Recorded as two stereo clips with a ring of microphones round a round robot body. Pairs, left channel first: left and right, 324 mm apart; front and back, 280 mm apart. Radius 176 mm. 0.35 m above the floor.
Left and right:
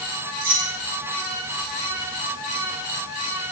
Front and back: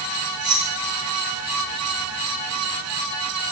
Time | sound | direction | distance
0.4 | keys jangling | 125° right | 5 m